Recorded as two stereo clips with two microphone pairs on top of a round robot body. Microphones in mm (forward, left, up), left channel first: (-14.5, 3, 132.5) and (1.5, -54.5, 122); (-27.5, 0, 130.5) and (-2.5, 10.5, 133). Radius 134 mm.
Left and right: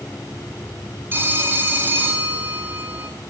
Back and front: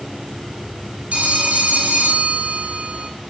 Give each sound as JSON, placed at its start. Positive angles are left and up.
{"t": 1.1, "sound": "a phone ringing", "azimuth_deg": -20, "distance_m": 3.5}